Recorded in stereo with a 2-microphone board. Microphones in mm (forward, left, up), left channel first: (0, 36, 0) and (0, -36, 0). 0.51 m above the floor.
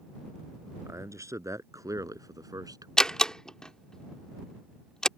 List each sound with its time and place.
0.8 s a man speaking: 40° right (ahead or behind); by 2.9 s 60° right (ahead or behind)
3.0 s a door slam: 10° left (ahead or behind)